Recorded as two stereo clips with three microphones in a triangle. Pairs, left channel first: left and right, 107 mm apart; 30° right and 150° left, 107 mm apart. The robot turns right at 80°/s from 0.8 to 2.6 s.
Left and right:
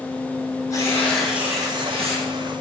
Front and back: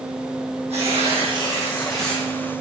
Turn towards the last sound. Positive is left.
turn(degrees=-70)